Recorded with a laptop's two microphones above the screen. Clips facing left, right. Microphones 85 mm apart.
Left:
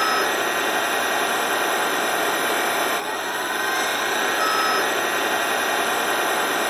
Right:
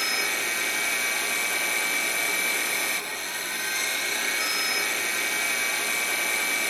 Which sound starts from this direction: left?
A machine running, at 0.0 s.